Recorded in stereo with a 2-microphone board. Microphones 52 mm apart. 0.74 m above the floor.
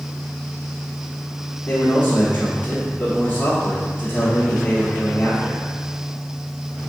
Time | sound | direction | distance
1.7 | a man speaking | 35° left (ahead or behind) | 1.6 m